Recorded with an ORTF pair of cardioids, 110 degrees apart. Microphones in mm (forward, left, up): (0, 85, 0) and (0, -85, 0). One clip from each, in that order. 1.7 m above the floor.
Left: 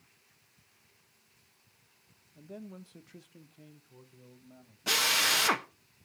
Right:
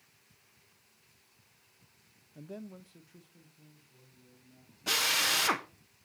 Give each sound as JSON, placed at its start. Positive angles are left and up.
{"t": 2.4, "sound": "a man speaking", "azimuth_deg": -30, "distance_m": 0.7}
{"t": 4.9, "sound": "a drill", "azimuth_deg": 15, "distance_m": 1.0}